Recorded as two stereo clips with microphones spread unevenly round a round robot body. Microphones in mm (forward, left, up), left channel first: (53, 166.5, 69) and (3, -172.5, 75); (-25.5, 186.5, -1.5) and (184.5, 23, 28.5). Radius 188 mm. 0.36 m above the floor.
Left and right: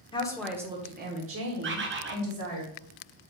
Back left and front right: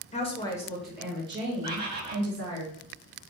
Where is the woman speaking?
140° left, 0.9 m; by 2.6 s 90° right, 1.6 m.